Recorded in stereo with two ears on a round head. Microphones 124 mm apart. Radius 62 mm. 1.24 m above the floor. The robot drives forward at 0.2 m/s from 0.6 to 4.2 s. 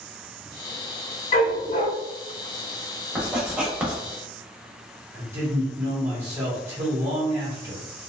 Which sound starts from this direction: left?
A dog barking, at 1.3 s.